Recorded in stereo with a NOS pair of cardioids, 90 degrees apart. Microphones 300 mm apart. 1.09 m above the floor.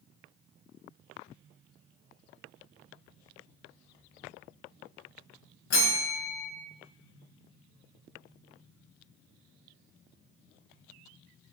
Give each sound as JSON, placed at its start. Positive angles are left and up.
{"t": 5.7, "sound": "a bell", "azimuth_deg": 45, "distance_m": 0.9}